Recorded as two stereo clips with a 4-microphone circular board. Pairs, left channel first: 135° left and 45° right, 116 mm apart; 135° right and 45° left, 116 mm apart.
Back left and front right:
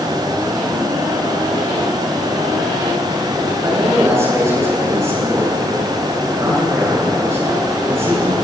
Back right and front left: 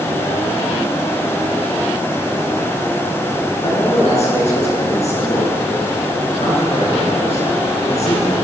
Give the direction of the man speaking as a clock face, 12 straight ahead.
4 o'clock.